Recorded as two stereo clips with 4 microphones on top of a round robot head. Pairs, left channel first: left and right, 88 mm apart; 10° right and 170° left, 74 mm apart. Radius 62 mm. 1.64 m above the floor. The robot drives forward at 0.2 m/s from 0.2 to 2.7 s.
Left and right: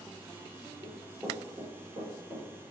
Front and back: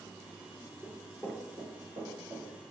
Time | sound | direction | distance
0.8 | running footsteps | 100° right | 1.8 m